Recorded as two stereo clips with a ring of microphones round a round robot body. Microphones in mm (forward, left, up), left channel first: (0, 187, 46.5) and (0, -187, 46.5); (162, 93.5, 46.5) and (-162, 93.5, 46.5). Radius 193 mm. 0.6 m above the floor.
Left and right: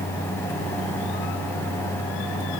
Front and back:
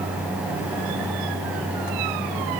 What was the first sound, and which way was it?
Only background noise.